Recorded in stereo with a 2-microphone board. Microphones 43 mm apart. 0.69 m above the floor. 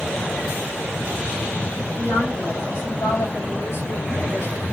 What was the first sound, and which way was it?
A woman speaking, 65° left (ahead or behind).